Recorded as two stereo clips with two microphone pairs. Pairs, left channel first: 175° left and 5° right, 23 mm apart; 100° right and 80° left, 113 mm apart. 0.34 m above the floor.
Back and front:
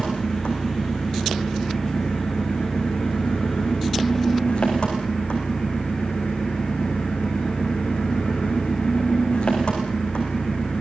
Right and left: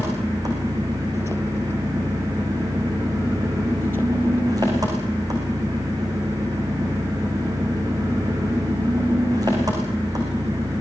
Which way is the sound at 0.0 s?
135° left.